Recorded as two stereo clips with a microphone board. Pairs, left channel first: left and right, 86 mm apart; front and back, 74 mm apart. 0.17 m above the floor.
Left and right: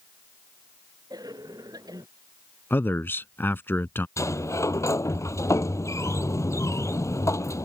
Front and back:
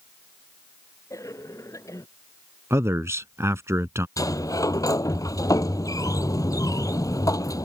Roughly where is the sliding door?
Ahead left.